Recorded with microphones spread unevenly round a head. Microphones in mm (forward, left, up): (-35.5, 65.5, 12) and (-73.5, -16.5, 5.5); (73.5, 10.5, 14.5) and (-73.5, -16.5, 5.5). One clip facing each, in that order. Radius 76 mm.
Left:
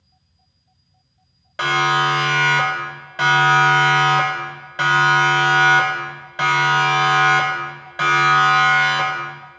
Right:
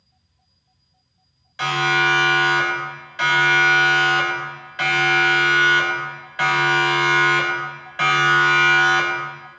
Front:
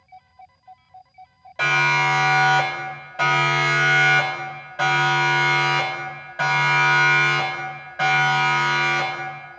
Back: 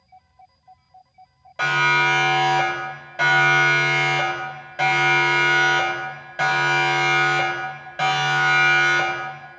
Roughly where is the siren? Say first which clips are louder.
Left 2 dB, even; left.